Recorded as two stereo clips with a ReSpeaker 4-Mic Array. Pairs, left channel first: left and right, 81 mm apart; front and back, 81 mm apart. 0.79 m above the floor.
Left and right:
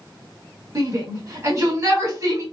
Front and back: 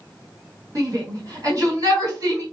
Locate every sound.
0.8 s a shout: 145° right, 3.5 m